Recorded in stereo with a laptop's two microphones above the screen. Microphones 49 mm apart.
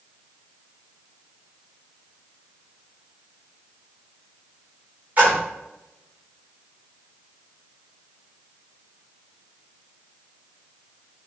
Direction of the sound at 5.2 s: 35° right (ahead or behind).